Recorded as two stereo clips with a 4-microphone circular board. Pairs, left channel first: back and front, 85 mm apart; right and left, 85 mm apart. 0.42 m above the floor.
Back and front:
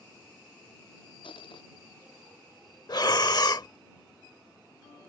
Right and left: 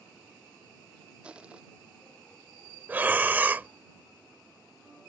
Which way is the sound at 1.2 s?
165° left.